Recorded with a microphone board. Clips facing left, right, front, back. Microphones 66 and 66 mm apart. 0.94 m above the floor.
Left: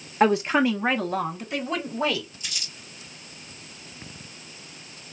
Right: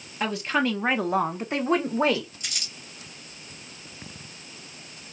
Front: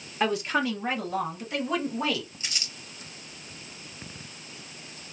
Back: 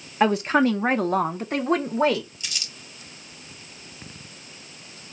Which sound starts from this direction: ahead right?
Crumpling, at 2.4 s.